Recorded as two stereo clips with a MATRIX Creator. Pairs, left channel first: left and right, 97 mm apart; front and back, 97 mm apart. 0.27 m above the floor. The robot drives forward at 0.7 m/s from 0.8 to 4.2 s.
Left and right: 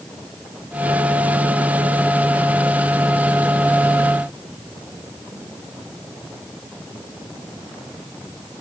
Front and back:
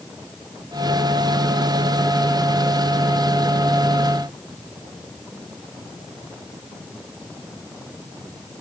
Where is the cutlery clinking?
I don't hear cutlery clinking.